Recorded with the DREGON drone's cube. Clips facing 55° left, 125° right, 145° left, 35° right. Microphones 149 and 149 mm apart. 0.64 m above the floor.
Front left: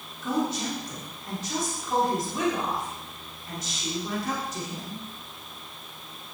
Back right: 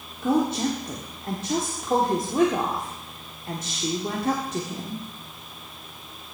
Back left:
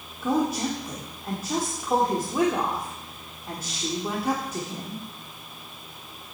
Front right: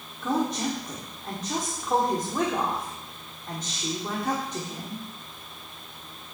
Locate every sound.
0.2 s a woman speaking: 135° right, 1.4 m